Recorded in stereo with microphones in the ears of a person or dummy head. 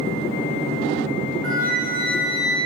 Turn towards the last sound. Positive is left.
turn(degrees=-65)  # may be behind; listen again after turning